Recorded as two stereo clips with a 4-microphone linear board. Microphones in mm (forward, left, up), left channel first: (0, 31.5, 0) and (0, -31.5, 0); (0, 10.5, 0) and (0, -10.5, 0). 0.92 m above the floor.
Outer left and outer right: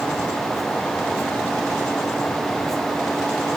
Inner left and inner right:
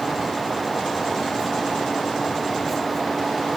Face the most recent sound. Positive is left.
No sound to turn to.